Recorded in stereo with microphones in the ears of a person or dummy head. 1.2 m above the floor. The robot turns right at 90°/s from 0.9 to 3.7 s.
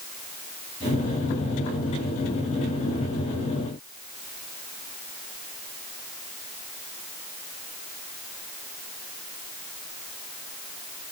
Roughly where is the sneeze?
I don't hear a sneeze.